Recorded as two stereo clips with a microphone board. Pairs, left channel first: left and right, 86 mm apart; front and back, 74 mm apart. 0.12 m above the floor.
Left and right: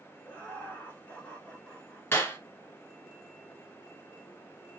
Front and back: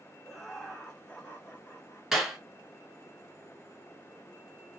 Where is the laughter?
100° left, 1.3 m; by 2.0 s 20° left, 1.5 m.